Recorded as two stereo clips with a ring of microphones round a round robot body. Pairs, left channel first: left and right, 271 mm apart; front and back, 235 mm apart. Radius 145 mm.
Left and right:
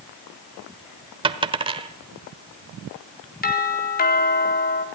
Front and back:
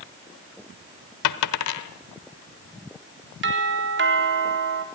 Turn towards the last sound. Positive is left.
turn(degrees=145)